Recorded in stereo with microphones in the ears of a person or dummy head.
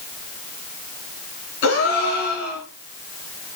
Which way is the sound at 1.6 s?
55° left (ahead or behind).